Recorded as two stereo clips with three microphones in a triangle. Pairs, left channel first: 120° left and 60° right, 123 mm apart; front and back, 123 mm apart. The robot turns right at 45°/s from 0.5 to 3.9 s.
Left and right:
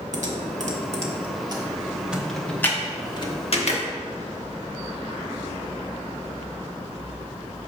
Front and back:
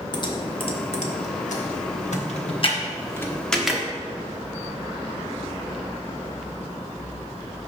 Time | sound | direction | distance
0.1 | typing on a keyboard | 50° right | 1.0 m